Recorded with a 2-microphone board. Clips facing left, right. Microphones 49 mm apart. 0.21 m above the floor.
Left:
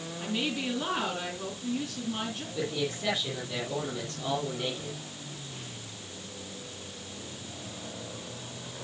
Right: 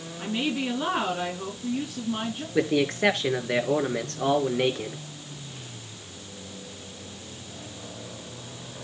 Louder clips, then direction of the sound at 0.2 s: Right 4 dB; 20° right (ahead or behind).